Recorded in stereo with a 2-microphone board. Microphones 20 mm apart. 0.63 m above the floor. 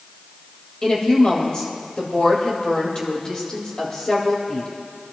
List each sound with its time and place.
0.8 s a woman speaking: 40° left (ahead or behind), 3.5 m